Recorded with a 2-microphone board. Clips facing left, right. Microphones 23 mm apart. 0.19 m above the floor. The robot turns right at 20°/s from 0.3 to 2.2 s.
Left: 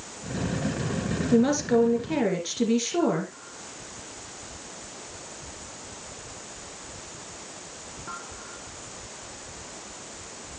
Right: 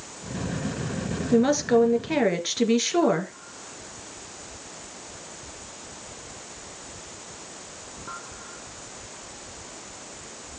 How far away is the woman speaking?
About 2.5 m.